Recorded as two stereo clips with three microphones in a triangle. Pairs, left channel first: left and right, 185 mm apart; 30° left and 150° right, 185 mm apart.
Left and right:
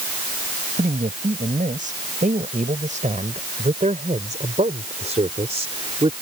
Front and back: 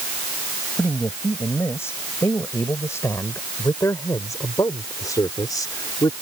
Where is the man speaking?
45° right; by 6.1 s 35° right.